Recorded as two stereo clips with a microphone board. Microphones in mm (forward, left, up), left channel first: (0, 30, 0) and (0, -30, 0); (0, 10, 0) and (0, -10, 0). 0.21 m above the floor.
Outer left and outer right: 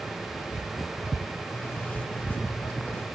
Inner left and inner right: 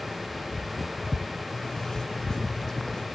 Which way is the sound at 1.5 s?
35° left (ahead or behind).